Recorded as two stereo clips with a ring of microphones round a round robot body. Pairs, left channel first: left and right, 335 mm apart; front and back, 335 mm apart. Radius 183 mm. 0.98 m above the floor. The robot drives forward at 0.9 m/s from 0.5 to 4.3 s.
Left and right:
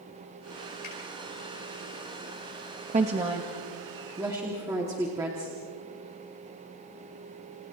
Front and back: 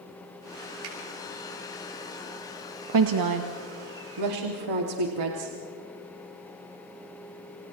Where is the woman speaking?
160° right, 1.0 m; by 5.5 s 170° right, 2 m.